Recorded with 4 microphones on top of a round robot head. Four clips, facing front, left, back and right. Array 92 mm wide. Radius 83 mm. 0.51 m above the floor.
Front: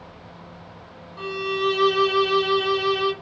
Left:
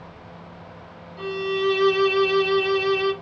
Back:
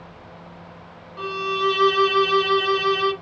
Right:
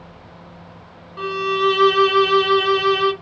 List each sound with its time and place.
1.2 s a violin: 95° right, 0.6 m